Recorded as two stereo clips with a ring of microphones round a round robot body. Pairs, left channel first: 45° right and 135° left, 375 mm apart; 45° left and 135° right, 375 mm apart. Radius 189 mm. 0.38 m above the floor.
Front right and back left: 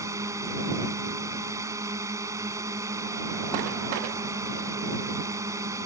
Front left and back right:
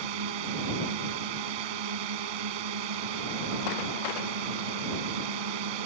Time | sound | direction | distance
0.0 | a drone | 145° right | ?